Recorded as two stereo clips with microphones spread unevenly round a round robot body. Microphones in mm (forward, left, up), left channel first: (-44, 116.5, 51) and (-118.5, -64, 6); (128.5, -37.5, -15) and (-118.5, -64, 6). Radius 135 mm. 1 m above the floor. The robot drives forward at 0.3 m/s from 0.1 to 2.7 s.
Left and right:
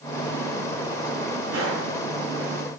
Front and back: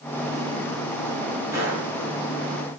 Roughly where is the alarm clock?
I don't hear an alarm clock.